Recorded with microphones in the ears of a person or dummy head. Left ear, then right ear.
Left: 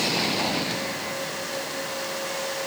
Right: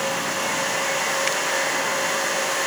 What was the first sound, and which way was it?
Only background noise.